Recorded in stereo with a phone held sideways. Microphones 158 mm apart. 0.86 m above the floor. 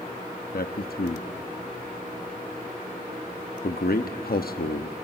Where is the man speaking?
75° left (ahead or behind), 0.9 m.